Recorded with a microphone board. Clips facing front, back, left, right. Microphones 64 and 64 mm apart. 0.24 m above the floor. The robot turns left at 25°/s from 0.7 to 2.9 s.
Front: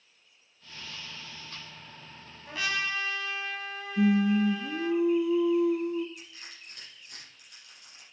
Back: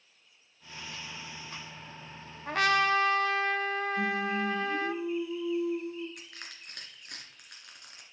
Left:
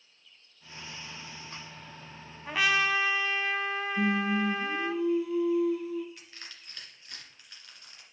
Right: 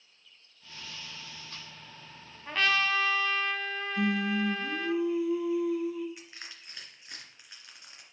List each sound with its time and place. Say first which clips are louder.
2.5 s a trumpet: back 7 dB, left 1 dB; 170° left, 0.6 m; by 5.0 s 160° left, 0.6 m
4.0 s singing: front 12 dB, left 1 dB; 5° right, 0.7 m
6.2 s crushing: back 1 dB, right 2 dB; 160° right, 2.5 m